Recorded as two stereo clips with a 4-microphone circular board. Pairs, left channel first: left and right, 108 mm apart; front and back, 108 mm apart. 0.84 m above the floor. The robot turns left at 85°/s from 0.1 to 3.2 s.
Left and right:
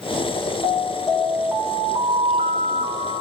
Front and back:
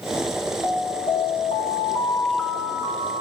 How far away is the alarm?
About 3 m.